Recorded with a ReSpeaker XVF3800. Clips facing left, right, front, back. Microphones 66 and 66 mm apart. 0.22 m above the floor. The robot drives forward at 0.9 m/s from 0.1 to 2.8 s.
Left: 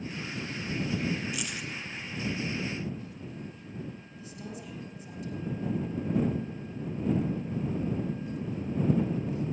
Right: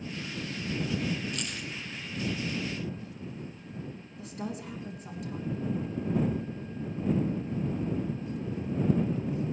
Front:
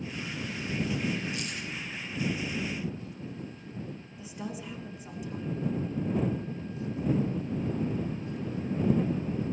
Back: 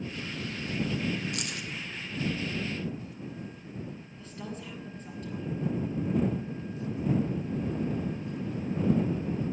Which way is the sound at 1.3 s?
170° left.